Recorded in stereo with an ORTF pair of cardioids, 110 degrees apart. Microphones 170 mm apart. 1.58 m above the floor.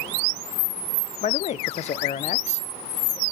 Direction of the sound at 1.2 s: 40° left.